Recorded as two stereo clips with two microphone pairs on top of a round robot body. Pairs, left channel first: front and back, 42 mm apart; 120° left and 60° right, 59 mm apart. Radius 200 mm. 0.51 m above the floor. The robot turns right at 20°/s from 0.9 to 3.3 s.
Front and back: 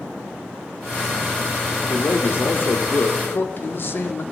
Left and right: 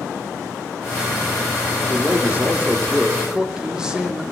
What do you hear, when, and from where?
1.9 s a man speaking: 10° right, 1.9 m; by 4.2 s 20° left, 1.9 m